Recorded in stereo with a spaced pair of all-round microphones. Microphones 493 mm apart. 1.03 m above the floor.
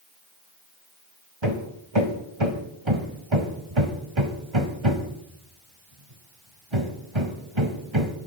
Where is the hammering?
65° right (ahead or behind), 1.7 m.